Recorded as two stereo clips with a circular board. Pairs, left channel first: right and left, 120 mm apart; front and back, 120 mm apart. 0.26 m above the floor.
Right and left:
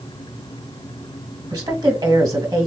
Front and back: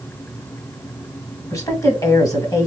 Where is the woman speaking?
45° left, 1.5 m.